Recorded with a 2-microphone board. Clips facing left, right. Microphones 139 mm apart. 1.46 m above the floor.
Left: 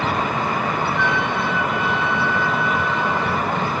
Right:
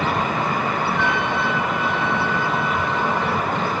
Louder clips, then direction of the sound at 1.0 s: Even; 55° right (ahead or behind).